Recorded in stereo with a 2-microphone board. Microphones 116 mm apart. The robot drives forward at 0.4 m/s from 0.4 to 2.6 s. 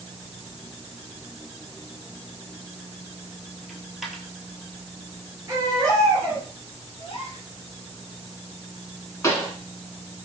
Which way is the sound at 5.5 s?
30° right (ahead or behind).